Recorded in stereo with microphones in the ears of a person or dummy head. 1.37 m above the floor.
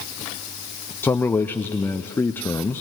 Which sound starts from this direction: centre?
A man speaking, at 1.0 s.